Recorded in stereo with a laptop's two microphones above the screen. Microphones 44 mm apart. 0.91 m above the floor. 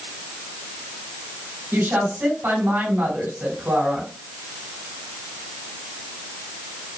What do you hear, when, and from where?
1.7 s a woman speaking: 65° right (ahead or behind), 3 m